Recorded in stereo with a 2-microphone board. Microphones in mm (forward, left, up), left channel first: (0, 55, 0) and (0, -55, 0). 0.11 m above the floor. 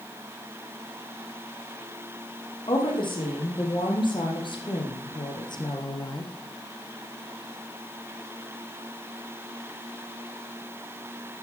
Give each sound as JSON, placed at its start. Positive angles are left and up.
{"t": 2.7, "sound": "a woman speaking", "side_deg": 50, "distance_m": 4.5}